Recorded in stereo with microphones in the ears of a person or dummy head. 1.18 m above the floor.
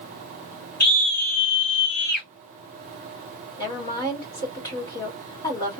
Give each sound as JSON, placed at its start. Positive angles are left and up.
{"t": 0.8, "sound": "a scream", "side_deg": 50, "distance_m": 1.6}
{"t": 3.6, "sound": "a woman speaking", "side_deg": 25, "distance_m": 2.0}